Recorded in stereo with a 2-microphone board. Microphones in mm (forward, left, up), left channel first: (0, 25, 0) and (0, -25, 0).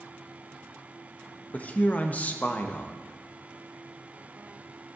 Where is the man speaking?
35° left (ahead or behind), 1.0 m.